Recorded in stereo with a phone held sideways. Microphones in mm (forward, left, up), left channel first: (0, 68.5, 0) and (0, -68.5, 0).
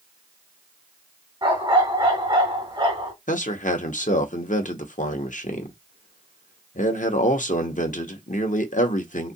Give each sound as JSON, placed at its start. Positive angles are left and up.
{"t": 1.4, "sound": "a dog barking", "side_deg": -35, "distance_m": 2.5}
{"t": 3.3, "sound": "a man speaking", "side_deg": 65, "distance_m": 1.0}